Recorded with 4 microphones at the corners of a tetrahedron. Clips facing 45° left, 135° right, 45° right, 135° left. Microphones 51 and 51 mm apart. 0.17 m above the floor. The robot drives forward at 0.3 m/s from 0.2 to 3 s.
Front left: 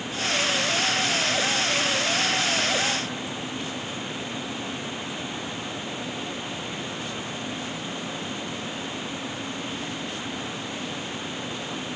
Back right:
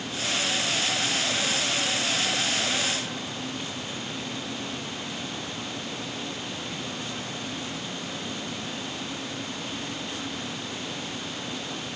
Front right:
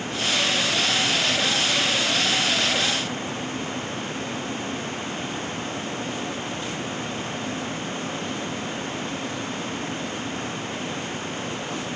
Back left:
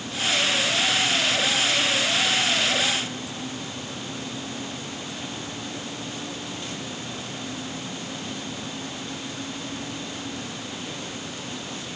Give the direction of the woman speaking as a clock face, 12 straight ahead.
I don't hear a woman speaking.